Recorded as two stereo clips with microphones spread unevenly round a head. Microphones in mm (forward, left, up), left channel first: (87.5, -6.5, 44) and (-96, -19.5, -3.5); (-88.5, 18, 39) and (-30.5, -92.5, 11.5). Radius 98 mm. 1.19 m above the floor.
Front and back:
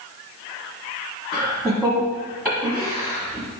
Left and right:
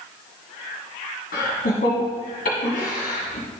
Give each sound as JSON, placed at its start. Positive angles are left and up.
{"t": 1.3, "sound": "laughter", "azimuth_deg": 105, "distance_m": 1.3}